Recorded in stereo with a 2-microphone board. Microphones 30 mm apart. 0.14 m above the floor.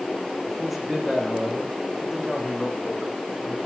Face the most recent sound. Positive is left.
turn(degrees=10)  # may be behind; listen again after turning